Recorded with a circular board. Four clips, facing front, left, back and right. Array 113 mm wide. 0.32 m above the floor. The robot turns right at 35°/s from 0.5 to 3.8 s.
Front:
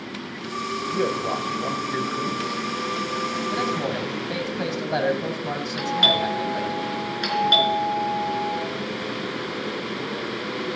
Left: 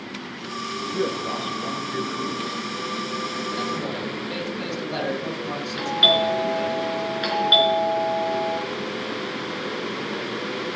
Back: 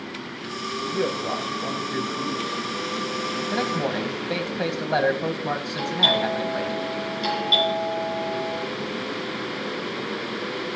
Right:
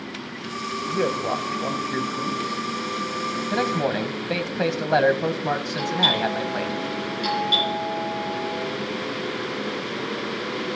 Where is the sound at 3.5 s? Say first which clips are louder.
Right 8 dB, back 2 dB; 115° right, 1.7 m; by 6.8 s 105° right, 1.7 m.